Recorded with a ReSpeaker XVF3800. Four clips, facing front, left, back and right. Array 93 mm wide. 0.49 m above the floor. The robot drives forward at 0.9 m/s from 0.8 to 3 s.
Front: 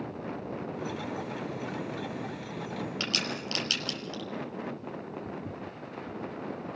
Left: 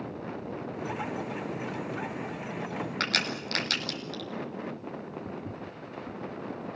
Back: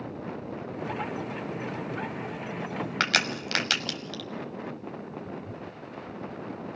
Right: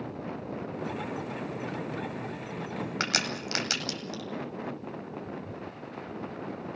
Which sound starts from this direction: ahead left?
Footsteps, at 5.2 s.